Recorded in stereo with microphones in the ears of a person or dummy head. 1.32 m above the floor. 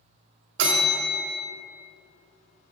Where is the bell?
65° right (ahead or behind), 1.2 m.